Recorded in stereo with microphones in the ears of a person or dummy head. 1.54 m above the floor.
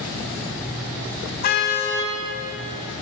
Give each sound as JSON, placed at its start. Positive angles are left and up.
{"t": 1.4, "sound": "a car horn", "side_deg": 55, "distance_m": 4.5}